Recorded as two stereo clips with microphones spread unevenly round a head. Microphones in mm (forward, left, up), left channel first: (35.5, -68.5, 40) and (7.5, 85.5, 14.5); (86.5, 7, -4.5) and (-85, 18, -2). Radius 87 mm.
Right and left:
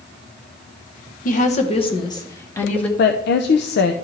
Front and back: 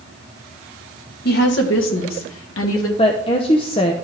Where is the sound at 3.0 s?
65° right, 0.6 m.